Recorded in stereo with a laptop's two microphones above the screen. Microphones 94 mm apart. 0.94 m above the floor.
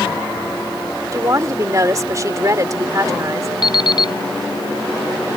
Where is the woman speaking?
35° right (ahead or behind).